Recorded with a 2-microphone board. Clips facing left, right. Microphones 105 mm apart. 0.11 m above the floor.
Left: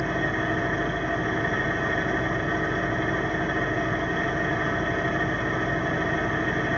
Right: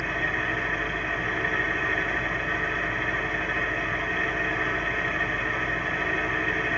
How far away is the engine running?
About 0.8 m.